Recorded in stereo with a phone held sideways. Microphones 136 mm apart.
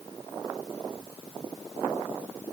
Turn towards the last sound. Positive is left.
No sound to turn to.